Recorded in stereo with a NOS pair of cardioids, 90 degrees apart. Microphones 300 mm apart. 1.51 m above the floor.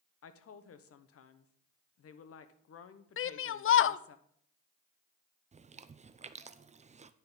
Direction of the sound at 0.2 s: 50° left.